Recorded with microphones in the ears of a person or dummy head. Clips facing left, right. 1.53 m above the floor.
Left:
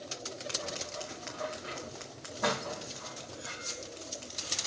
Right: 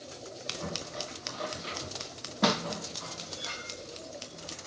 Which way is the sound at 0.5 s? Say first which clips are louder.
Right 4 dB; 40° right (ahead or behind).